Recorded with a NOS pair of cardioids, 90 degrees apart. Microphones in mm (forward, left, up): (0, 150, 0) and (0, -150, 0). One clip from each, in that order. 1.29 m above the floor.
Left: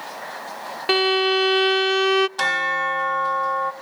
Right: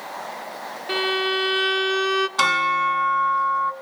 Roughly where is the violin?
Ahead left.